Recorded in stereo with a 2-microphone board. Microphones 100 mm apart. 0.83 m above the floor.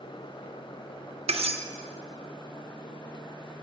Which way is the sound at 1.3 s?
85° right.